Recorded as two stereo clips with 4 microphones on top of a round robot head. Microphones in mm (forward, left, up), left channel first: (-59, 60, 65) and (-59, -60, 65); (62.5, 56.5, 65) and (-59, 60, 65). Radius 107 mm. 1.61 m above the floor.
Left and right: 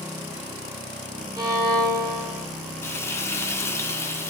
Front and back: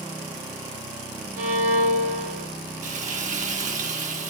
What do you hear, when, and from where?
1.4 s a violin: 150° right, 3 m
2.8 s frying: 160° left, 1.8 m